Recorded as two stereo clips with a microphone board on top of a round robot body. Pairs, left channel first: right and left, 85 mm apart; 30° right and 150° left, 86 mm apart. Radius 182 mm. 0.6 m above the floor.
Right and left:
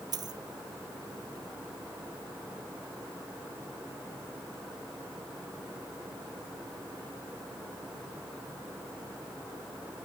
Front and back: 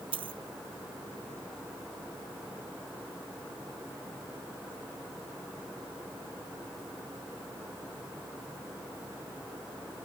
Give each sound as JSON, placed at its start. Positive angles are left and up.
{"t": 0.1, "sound": "a dropped coin", "azimuth_deg": 130}